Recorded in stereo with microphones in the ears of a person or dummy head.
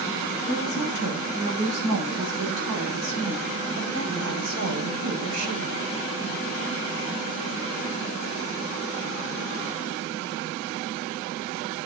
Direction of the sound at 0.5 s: 55° right (ahead or behind).